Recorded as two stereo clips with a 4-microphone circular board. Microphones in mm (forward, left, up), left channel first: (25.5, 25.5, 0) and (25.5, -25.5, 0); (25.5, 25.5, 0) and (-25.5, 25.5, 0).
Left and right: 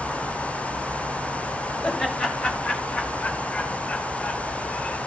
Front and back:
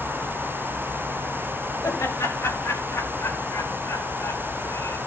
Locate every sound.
1.8 s laughter: 5° left, 3.5 m; by 5.0 s 20° left, 4.5 m